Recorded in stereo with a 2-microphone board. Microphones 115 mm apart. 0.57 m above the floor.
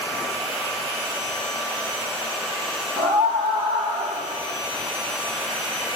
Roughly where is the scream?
Right.